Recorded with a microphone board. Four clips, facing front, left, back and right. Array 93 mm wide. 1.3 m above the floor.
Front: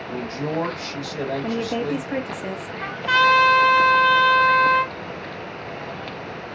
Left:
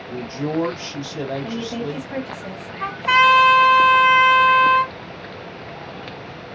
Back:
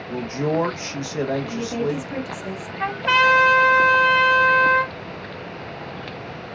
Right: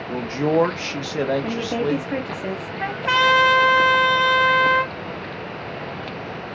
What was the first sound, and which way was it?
A man speaking, 110° right.